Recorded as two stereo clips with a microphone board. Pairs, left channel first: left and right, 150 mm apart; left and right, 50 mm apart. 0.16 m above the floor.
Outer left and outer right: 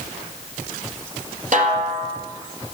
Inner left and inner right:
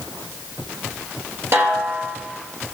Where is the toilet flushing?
I don't hear a toilet flushing.